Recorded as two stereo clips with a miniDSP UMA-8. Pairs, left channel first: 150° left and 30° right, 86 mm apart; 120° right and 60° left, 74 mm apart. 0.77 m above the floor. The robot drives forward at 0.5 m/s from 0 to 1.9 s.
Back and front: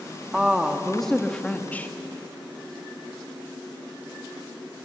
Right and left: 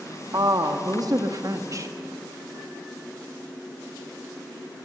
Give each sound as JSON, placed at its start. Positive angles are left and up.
{"t": 0.3, "sound": "a woman speaking", "azimuth_deg": 55, "distance_m": 1.6}